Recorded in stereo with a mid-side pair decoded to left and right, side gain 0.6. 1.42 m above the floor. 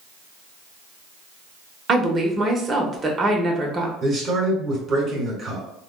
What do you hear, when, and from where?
1.9 s a woman speaking: 30° right, 1.0 m
4.0 s a man speaking: 40° right, 1.7 m